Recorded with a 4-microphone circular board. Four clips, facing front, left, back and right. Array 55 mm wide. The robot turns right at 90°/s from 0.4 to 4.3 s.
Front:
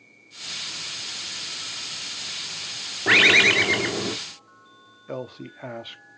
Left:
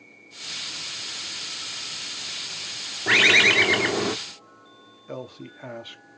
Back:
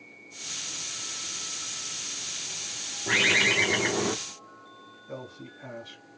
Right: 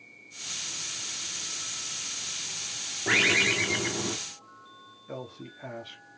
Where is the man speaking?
20° left, 1.0 m.